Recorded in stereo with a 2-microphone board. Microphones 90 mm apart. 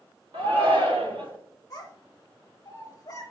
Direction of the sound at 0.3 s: 80° right.